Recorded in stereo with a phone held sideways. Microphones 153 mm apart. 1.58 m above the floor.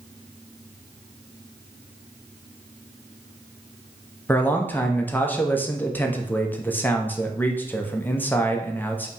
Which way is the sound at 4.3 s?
10° left (ahead or behind).